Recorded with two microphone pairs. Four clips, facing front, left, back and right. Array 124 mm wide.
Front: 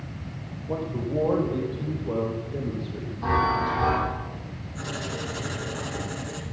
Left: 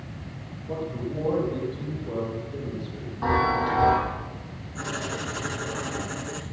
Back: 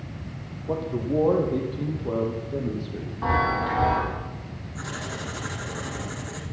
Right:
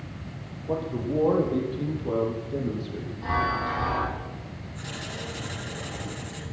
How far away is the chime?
About 9.5 m.